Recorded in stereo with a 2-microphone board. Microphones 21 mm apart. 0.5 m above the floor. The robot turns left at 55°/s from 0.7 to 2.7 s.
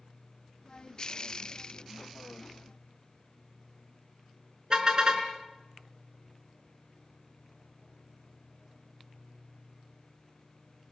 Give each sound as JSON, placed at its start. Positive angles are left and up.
{"t": 4.7, "sound": "a car horn", "side_deg": -40, "distance_m": 4.0}